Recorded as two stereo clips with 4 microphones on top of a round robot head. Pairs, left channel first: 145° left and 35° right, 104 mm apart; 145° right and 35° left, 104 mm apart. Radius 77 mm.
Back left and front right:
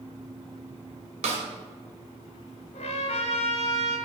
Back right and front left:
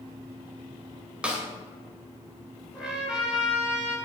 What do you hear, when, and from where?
1.2 s a snare drum: 40° right, 2.5 m
2.7 s a trumpet: 120° left, 3.5 m